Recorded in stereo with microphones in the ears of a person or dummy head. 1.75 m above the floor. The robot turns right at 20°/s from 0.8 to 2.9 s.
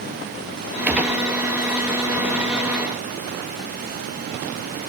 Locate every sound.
0.9 s a gunshot: 5° right (ahead or behind), 1.4 m; by 1.2 s 5° left (ahead or behind), 1.4 m